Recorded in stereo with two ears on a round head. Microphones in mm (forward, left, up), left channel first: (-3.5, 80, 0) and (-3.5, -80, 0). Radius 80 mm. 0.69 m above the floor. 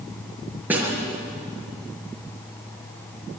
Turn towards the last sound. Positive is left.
turn(degrees=-10)  # may be behind; listen again after turning